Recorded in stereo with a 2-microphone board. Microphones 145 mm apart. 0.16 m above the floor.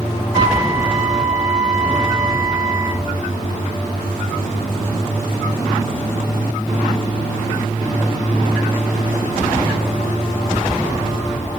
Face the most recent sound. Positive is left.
turn(degrees=5)  # may be behind; listen again after turning